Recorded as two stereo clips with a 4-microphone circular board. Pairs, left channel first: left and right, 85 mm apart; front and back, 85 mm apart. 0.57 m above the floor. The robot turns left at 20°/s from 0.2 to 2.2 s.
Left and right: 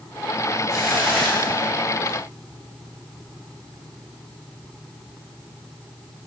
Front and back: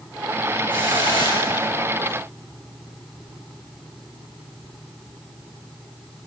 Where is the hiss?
175° left, 8 m; by 2.2 s 145° left, 8 m.